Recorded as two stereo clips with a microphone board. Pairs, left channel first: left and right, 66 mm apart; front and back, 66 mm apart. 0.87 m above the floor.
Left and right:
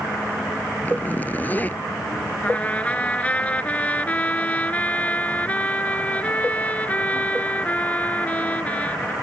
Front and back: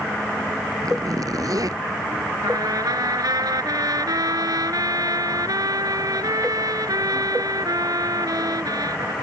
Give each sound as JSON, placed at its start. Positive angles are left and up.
{"t": 0.8, "sound": "a zipper", "azimuth_deg": 155}
{"t": 2.4, "sound": "a trumpet", "azimuth_deg": 160}